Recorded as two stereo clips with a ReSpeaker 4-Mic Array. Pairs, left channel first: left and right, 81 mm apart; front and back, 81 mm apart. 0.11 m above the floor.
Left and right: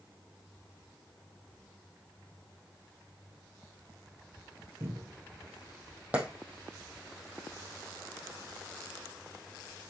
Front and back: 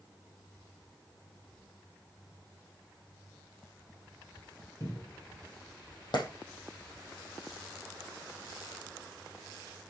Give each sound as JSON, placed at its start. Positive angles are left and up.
{"t": 4.8, "sound": "a cupboard door", "azimuth_deg": -45, "distance_m": 3.0}
{"t": 6.1, "sound": "a clap", "azimuth_deg": -20, "distance_m": 3.0}